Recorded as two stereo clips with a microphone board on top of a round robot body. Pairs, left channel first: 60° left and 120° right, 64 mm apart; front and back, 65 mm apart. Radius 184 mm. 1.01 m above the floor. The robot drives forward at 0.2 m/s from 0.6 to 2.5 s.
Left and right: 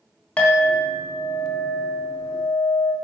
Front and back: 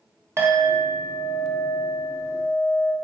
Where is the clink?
130° left, 1.0 m; by 2.9 s 145° left, 1.3 m.